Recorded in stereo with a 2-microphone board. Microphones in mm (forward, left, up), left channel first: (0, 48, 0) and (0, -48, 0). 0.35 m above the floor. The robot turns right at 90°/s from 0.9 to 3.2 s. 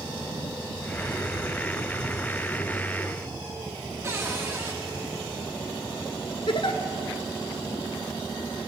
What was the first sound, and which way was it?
A cupboard door, 30° right (ahead or behind).